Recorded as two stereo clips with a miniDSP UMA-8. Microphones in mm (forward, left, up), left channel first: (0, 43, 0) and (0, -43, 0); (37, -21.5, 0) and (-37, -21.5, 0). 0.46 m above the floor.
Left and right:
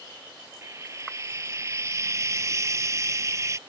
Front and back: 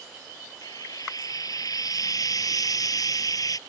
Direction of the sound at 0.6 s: 35° right.